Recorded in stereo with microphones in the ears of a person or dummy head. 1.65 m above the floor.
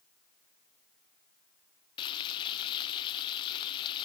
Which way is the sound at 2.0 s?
35° left (ahead or behind).